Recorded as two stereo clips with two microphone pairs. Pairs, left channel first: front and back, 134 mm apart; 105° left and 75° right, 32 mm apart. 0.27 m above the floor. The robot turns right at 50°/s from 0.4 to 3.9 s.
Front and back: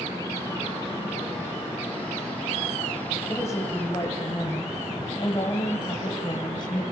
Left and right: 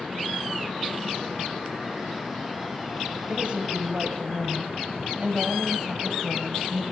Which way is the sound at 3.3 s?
60° right.